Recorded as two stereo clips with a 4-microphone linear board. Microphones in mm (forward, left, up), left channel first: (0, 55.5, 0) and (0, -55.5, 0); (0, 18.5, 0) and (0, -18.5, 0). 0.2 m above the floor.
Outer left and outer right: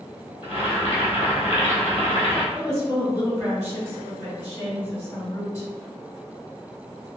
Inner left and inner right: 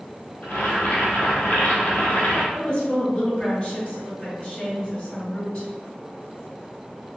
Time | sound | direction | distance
0.4 | boiling | 50° left (ahead or behind) | 1.5 m
2.5 | a woman speaking | 25° left (ahead or behind) | 2.0 m